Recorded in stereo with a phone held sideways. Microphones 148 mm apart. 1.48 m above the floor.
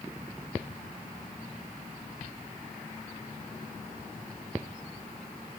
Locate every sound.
Only background noise.